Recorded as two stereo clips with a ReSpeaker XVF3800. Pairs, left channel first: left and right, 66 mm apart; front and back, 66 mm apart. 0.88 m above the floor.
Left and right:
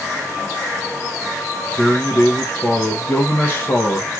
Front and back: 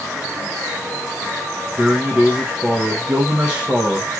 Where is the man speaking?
120° left, 0.7 m.